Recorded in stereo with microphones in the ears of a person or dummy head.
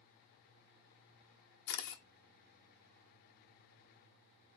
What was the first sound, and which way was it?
A camera shutter, 60° left (ahead or behind).